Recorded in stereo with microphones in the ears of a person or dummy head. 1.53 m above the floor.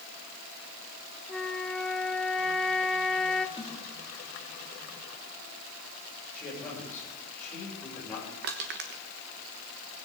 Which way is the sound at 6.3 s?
15° left (ahead or behind).